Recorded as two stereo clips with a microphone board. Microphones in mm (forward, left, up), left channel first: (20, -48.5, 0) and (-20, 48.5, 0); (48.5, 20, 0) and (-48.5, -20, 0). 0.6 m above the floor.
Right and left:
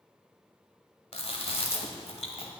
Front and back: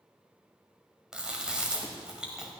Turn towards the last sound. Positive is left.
turn(degrees=-75)